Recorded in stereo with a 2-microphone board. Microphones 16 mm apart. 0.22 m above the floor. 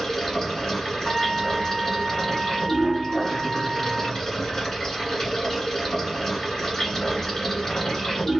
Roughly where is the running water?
Left.